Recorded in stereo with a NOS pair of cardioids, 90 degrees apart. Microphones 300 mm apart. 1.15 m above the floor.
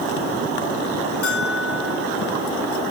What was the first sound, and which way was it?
A bell, 50° left.